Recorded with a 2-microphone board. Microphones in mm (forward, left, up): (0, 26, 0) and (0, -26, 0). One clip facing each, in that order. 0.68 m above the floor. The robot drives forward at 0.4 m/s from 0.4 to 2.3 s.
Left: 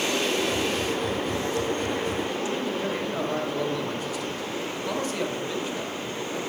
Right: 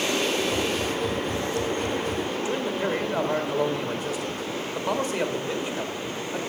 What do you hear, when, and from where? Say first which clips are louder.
2.5 s a man speaking: right 2 dB; 20° right (ahead or behind), 1.5 m